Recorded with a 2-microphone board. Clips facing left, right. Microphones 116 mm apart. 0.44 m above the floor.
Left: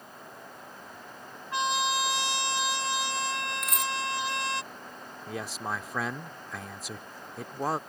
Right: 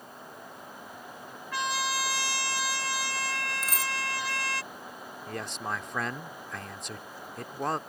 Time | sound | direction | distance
1.5 | a trumpet | 20° left (ahead or behind) | ?
3.6 | a dropped coin | 30° right (ahead or behind) | ?
5.3 | a man speaking | centre (ahead or behind) | ?